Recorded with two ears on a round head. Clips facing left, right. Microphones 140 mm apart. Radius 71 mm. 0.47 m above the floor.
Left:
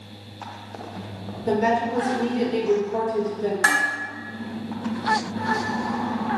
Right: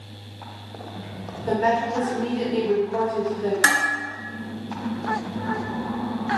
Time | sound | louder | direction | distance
1.5 | a woman speaking | even | 25° left (ahead or behind) | 1.4 m
3.6 | dishes clattering | even | 40° right (ahead or behind) | 0.9 m